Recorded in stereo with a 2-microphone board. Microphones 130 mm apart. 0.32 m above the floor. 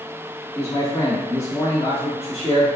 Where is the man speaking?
55° left (ahead or behind), 1.6 m.